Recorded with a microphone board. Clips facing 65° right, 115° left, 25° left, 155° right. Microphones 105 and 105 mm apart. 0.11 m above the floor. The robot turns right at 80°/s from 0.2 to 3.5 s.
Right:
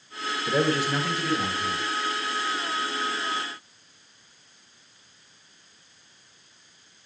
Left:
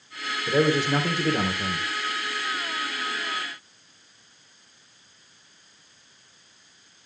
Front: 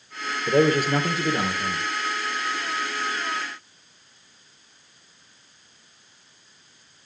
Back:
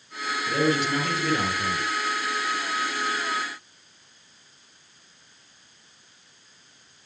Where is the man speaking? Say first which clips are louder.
Left 3 dB, front 5 dB; 15° left, 2.5 m; by 1.9 s 130° left, 2.5 m.